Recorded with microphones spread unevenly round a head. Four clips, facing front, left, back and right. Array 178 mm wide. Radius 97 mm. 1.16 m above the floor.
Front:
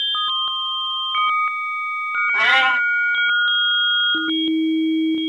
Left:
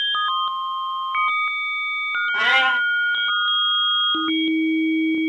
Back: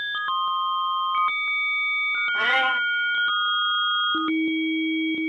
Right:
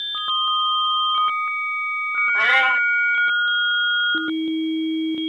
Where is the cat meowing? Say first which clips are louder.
Even, front 4 dB; 35° left, 2.5 m.